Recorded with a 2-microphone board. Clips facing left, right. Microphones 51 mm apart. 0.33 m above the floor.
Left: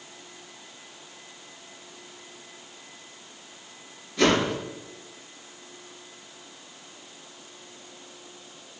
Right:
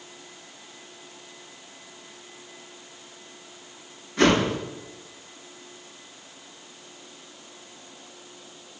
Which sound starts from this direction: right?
A whoosh, at 4.2 s.